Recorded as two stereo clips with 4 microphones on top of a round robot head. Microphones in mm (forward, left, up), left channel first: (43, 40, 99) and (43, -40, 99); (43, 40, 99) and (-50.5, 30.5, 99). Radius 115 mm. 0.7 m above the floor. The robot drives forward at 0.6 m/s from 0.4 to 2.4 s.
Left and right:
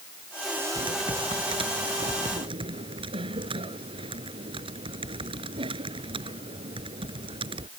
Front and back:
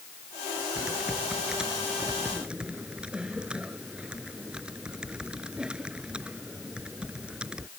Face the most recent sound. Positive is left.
turn(degrees=-95)